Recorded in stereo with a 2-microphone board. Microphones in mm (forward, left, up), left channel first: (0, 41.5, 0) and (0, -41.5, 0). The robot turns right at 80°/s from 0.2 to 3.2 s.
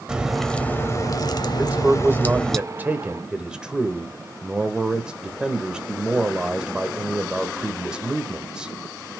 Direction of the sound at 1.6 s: 15° right (ahead or behind).